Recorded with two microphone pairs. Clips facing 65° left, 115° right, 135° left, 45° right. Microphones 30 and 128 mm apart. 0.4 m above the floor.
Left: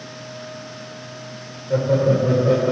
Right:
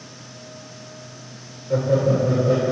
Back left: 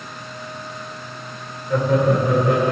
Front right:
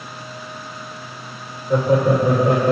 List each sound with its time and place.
1.7 s laughter: 30° right, 1.3 m; by 2.7 s 10° left, 2.5 m